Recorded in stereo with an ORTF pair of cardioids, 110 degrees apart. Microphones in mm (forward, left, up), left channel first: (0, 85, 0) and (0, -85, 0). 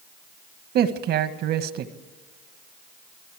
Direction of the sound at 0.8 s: 65° right.